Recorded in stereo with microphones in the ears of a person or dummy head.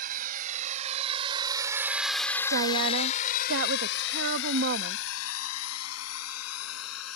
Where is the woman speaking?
60° right (ahead or behind).